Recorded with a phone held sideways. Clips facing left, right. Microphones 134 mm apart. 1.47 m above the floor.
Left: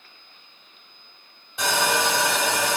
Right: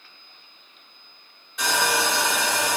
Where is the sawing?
30° left (ahead or behind), 1.7 m.